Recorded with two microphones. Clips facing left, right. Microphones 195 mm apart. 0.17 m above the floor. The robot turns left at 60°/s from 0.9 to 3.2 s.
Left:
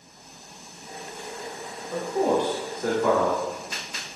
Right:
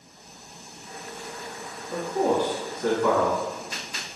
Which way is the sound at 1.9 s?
20° right (ahead or behind).